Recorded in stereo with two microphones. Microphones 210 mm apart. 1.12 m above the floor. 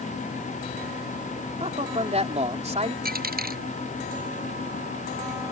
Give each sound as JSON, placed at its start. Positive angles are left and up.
{"t": 1.6, "sound": "a man speaking", "side_deg": -30}
{"t": 3.0, "sound": "a dropped coin", "side_deg": -45}